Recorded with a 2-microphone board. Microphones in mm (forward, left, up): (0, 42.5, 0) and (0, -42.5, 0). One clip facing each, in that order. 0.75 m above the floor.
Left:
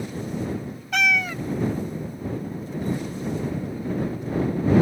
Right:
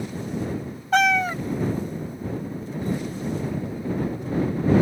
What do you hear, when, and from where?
0.9 s a cat meowing: 35° right (ahead or behind)